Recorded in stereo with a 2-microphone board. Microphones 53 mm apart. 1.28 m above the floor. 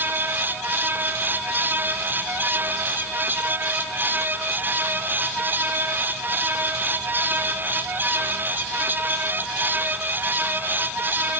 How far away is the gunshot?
I don't hear a gunshot.